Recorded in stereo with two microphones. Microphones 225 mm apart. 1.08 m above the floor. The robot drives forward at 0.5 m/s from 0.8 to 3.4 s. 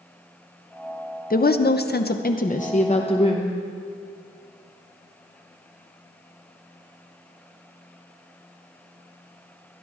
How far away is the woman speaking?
About 0.6 m.